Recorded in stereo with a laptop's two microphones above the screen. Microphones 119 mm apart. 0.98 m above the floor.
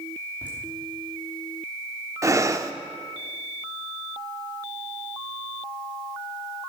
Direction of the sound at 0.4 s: 15° right (ahead or behind).